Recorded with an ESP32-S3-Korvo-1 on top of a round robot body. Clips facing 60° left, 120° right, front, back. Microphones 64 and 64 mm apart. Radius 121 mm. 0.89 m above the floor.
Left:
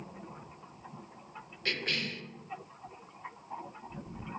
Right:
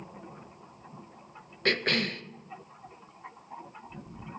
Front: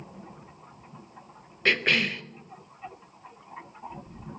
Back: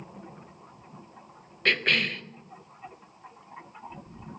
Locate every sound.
1.6 s a cough: 85° right, 0.6 m